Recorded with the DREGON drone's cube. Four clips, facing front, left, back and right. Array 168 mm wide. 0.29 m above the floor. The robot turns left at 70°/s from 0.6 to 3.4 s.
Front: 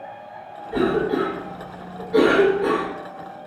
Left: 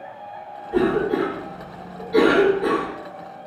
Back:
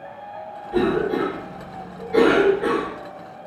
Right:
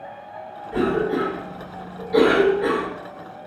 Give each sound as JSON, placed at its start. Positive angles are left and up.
{"t": 0.7, "sound": "a cough", "azimuth_deg": 0, "distance_m": 1.0}